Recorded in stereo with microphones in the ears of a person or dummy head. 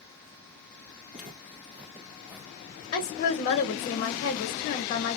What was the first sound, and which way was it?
Footsteps, 5° right (ahead or behind).